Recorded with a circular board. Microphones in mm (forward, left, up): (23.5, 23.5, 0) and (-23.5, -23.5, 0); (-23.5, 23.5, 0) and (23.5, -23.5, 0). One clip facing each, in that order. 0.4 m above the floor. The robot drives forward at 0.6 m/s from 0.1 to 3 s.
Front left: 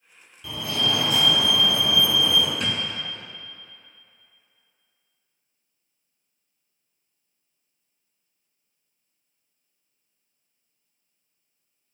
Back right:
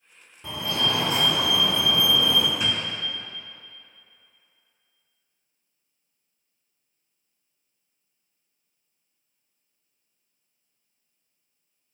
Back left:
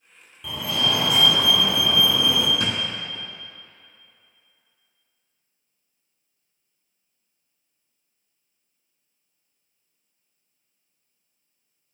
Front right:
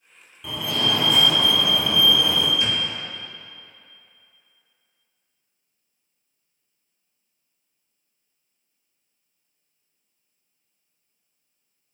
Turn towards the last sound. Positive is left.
turn(degrees=145)